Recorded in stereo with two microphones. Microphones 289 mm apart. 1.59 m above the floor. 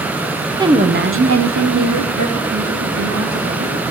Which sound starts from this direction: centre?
A woman speaking, at 0.6 s.